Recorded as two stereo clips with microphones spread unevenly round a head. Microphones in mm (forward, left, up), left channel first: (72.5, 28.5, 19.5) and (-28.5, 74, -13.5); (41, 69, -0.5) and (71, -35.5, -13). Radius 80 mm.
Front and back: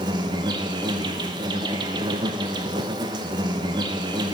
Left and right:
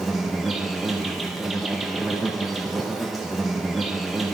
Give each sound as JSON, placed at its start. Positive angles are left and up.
{"t": 0.0, "sound": "an insect", "azimuth_deg": -160, "distance_m": 0.8}